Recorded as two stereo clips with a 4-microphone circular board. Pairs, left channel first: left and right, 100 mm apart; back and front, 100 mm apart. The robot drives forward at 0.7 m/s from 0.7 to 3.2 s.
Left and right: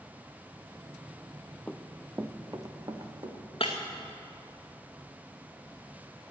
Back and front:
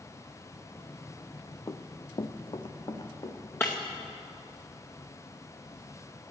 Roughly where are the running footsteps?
Behind.